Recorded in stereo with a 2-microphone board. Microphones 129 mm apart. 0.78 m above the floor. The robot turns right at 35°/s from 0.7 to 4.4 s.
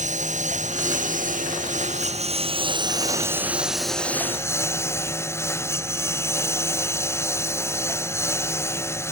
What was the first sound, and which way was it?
A lawn mower, 110° right.